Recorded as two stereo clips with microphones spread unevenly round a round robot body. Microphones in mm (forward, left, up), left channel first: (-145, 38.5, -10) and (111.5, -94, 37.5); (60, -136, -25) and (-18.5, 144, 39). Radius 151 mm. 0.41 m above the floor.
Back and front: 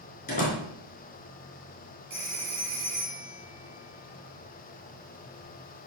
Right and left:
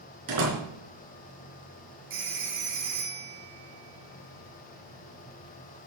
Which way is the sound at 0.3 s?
90° left.